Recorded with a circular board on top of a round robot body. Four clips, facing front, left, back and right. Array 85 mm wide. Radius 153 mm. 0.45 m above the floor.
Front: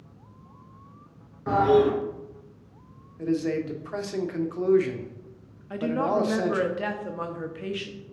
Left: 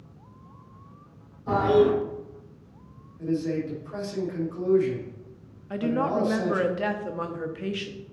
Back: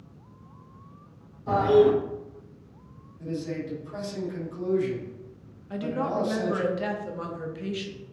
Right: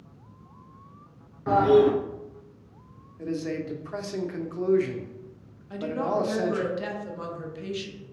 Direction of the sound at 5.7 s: 65° left.